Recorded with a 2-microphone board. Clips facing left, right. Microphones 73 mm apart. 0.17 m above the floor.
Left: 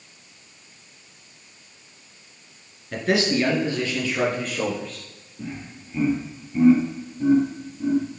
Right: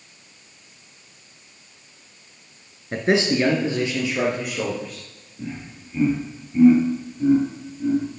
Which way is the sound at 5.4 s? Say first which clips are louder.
Right 1 dB; 5° left (ahead or behind).